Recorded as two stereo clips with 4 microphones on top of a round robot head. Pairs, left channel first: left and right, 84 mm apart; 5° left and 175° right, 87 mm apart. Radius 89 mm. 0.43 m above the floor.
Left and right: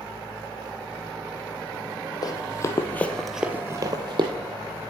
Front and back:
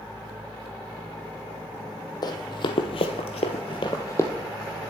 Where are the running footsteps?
45° left, 1.3 m; by 4.3 s 65° right, 1.0 m.